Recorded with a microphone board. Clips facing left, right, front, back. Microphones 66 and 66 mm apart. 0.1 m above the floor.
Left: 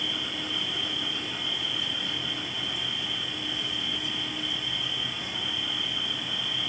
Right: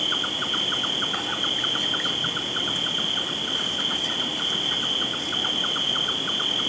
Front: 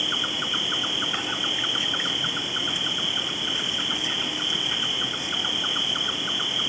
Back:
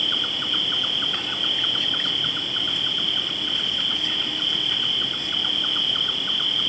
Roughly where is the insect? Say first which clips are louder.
Right 5 dB, even; right.